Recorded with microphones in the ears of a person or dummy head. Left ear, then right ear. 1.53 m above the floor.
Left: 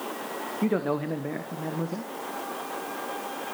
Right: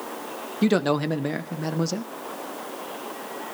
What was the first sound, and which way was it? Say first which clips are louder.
A man speaking: right 6 dB; 75° right (ahead or behind).